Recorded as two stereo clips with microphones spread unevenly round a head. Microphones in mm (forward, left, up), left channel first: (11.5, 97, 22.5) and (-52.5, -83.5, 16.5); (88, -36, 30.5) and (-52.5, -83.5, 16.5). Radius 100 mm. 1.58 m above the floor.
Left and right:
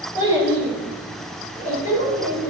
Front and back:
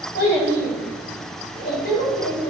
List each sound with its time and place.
0.1 s a child speaking: straight ahead, 4 m; by 2.5 s 25° left, 5 m